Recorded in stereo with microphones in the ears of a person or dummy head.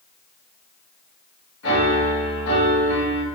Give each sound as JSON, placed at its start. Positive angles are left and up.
{"t": 1.6, "sound": "a piano", "side_deg": 90, "distance_m": 2.0}